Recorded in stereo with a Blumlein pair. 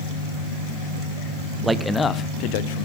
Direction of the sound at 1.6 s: 15° right.